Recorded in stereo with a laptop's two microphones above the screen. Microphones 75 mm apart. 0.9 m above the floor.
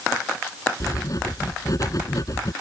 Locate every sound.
0.8 s writing: 50° left (ahead or behind)